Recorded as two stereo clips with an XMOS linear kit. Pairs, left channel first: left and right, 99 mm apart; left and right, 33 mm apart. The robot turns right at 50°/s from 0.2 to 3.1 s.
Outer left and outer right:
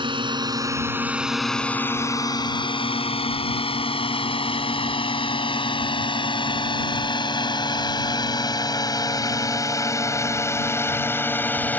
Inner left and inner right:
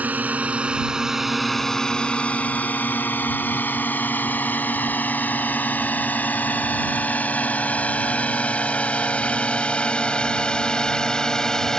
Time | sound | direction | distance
0.0 | a drone | 55° right (ahead or behind) | ?